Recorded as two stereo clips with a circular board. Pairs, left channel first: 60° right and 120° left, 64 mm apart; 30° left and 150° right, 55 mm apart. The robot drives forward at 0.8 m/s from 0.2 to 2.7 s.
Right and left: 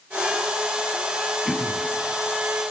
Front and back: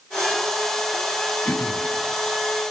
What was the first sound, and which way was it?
Throat clearing, 30° left.